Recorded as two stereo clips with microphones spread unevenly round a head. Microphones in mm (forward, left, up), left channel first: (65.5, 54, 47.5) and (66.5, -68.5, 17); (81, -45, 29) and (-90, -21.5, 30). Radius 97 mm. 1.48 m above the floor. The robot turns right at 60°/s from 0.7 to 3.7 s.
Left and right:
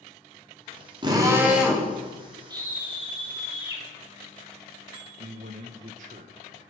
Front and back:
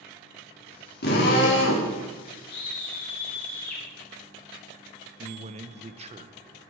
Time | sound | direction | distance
1.0 | a drill | 35° right | 4.5 m
2.5 | a scream | 35° right | 1.7 m
5.2 | a man speaking | 135° right | 1.2 m